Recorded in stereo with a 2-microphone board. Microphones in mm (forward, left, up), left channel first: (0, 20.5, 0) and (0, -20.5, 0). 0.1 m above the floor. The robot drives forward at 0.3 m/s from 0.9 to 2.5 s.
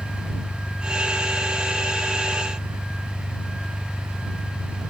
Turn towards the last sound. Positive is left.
turn(degrees=70)  # may be behind; listen again after turning